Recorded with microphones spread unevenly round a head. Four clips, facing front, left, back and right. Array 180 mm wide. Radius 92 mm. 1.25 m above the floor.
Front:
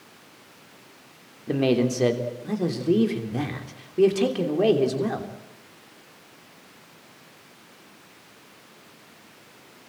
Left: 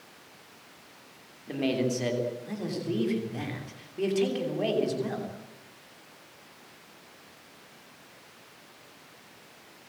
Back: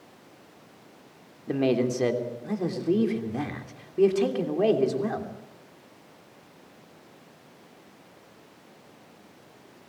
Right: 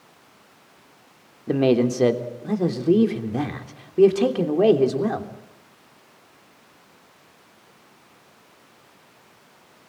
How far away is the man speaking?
About 3 m.